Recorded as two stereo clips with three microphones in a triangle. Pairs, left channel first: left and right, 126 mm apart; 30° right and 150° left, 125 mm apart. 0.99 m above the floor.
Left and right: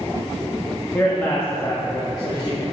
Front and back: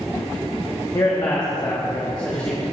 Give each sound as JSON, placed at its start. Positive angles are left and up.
{"t": 0.9, "sound": "a man speaking", "azimuth_deg": 20, "distance_m": 1.4}